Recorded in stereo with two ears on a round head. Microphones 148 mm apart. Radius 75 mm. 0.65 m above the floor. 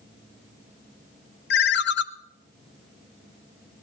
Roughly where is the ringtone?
Left.